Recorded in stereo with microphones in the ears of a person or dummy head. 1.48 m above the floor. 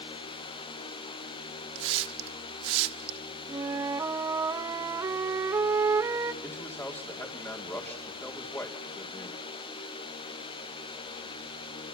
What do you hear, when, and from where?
1.8 s a hiss: 75° right (ahead or behind), 1.3 m
3.5 s a flute: 20° right (ahead or behind), 0.8 m
6.4 s a man speaking: 10° left (ahead or behind), 3.5 m